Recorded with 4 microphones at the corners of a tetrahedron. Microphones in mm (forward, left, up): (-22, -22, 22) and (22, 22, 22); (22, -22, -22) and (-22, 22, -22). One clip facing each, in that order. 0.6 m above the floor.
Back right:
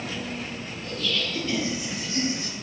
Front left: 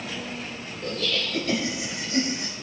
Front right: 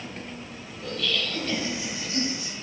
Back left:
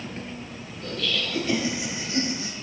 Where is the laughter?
40° left, 3 m; by 2.5 s 85° left, 4 m.